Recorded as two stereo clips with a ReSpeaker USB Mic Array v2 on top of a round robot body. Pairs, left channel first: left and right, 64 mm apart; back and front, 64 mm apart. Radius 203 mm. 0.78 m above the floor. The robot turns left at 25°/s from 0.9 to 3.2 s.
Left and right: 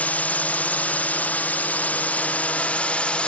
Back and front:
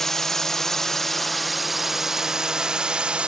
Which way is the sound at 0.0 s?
105° left.